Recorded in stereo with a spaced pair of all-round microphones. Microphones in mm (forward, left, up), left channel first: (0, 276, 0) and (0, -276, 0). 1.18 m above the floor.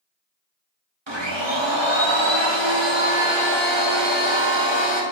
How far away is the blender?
About 1.4 m.